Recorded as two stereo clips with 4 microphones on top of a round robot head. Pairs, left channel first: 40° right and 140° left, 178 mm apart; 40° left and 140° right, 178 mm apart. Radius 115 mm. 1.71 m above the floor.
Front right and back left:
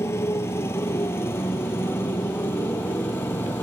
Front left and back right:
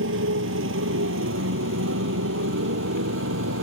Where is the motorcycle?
120° right.